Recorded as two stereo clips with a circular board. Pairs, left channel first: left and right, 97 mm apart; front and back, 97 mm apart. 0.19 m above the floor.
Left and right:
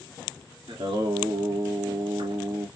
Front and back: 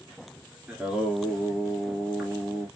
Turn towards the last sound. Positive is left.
turn(degrees=-100)